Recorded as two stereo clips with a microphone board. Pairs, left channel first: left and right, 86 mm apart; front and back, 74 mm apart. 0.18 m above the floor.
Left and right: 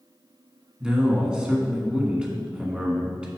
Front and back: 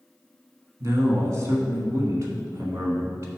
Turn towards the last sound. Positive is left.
turn(degrees=-165)